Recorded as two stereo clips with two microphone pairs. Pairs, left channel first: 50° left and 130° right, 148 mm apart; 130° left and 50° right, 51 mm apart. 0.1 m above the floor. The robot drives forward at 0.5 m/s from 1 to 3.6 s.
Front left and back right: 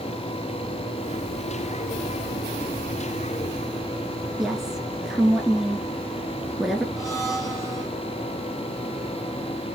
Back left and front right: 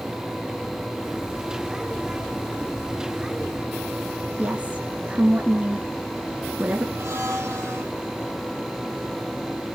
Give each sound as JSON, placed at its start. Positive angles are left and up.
{"t": 4.4, "sound": "a woman speaking", "azimuth_deg": -45, "distance_m": 1.4}
{"t": 7.0, "sound": "a blender", "azimuth_deg": -20, "distance_m": 3.5}